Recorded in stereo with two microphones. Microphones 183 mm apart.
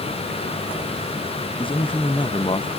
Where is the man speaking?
25° left (ahead or behind), 1.1 m.